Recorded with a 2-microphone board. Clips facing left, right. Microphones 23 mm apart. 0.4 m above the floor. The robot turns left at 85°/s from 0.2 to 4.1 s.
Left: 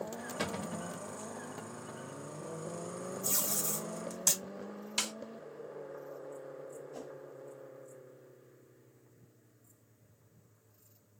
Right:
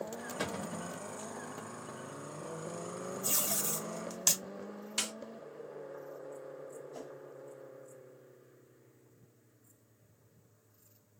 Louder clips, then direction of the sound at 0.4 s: Left 1 dB; 165° left.